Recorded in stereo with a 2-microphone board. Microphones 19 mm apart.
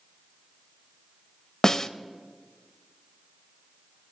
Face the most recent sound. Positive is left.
turn(degrees=25)  # may be behind; listen again after turning